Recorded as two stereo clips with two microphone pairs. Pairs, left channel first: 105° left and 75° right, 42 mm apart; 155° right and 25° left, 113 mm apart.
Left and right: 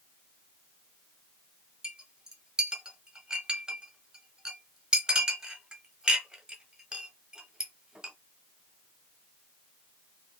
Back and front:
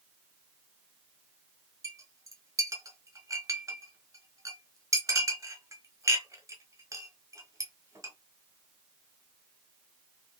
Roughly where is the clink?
Ahead.